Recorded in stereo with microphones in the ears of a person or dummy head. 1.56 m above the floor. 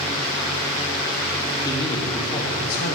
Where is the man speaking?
20° left (ahead or behind), 1.3 m; by 3.0 s 60° left (ahead or behind), 0.8 m.